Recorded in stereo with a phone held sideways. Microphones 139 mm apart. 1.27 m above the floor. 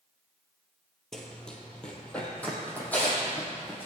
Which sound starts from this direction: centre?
Running footsteps, at 1.1 s.